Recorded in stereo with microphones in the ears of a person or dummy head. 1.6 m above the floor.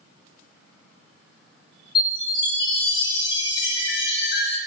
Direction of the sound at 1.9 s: 25° left (ahead or behind).